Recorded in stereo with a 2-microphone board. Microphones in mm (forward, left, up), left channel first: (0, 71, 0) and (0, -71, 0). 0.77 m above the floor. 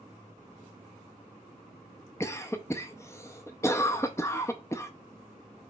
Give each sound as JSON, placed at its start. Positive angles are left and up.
{"t": 2.2, "sound": "a cough", "side_deg": 20, "distance_m": 0.5}